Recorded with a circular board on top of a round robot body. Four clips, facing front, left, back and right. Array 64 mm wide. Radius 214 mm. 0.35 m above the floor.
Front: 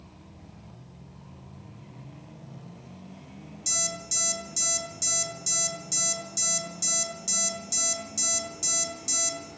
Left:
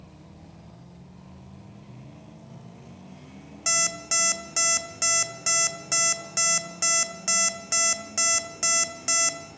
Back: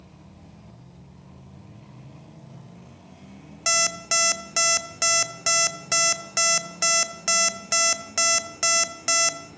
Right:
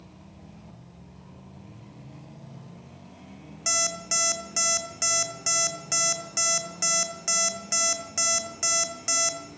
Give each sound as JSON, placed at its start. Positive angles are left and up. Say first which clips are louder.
{"t": 3.7, "sound": "an alarm clock", "louder": "left 1 dB, back 12 dB", "azimuth_deg": 170, "distance_m": 0.5}